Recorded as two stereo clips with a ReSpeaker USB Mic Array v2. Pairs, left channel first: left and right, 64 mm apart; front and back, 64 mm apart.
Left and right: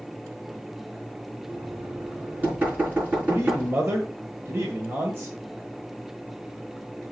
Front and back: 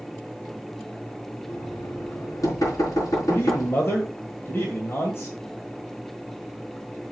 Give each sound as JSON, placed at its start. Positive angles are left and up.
{"t": 1.5, "sound": "knocking", "azimuth_deg": -30, "distance_m": 5.5}
{"t": 3.3, "sound": "a man speaking", "azimuth_deg": -45, "distance_m": 1.8}